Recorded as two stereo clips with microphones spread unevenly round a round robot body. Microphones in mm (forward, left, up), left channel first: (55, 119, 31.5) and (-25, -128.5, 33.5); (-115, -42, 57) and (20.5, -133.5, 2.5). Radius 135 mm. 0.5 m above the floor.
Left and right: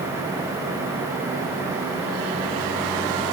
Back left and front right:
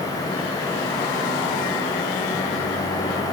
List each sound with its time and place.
Only background noise.